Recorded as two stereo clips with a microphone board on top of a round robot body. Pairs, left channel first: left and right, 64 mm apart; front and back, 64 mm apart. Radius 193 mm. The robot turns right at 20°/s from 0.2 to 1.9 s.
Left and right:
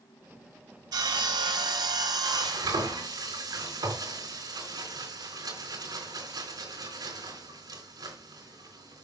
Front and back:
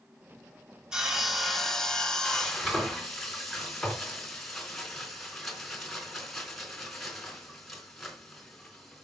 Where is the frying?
85° right, 3.5 m.